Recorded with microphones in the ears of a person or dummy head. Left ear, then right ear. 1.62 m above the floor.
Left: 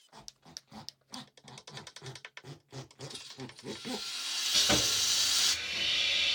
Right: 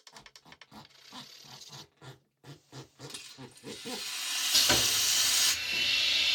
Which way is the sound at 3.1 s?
30° right (ahead or behind).